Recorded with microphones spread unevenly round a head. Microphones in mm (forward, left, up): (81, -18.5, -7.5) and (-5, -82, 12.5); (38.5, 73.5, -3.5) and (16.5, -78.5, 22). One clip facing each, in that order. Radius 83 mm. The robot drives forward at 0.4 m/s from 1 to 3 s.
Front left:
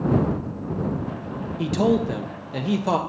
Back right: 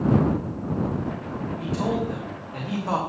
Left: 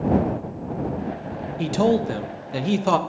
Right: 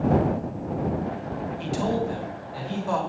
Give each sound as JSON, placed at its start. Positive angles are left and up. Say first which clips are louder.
{"t": 1.6, "sound": "a man speaking", "louder": "front left 6 dB, left 7 dB", "azimuth_deg": 60, "distance_m": 1.2}